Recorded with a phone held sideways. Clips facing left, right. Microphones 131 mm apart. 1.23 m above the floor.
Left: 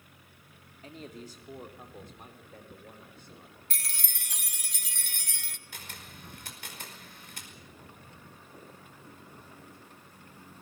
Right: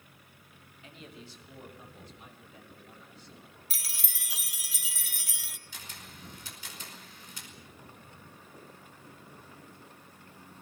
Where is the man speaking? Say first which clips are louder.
Left 5 dB; 40° left (ahead or behind), 2.5 m; by 3.5 s 55° left (ahead or behind), 5.5 m.